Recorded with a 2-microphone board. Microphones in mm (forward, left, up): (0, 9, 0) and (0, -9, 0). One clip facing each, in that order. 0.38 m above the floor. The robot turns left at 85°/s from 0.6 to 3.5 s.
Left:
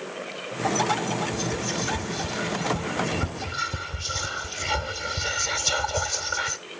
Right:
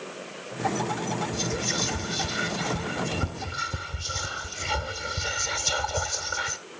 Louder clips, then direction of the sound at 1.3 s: Even; 10° right (ahead or behind).